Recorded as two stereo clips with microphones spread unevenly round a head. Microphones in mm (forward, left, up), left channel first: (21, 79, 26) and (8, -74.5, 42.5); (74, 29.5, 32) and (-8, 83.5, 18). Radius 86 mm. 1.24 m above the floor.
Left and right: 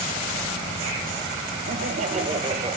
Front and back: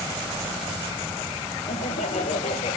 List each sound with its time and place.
1.7 s laughter: 60° right, 1.6 m; by 2.8 s 35° right, 1.6 m